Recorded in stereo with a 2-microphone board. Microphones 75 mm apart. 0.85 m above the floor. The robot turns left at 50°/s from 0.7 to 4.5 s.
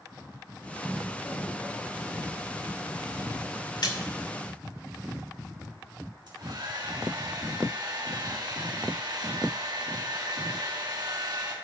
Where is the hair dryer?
70° right (ahead or behind), 3 m.